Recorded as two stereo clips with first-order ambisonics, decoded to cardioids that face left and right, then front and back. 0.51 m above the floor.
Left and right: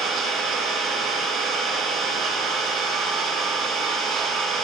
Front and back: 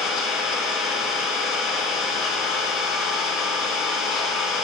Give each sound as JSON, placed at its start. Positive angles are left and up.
{"t": 0.0, "sound": "an engine running", "azimuth_deg": -45, "distance_m": 5.0}